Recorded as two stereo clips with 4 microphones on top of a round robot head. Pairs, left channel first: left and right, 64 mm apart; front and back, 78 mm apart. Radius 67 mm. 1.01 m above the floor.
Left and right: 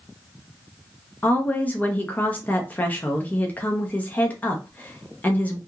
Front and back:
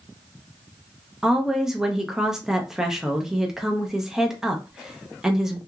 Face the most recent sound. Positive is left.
turn(degrees=105)